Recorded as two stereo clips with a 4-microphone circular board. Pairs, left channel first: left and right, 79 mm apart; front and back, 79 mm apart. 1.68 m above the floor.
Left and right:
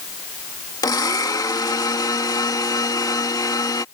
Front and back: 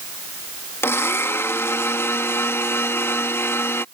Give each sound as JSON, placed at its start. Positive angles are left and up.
{"t": 0.8, "sound": "a blender", "azimuth_deg": 55}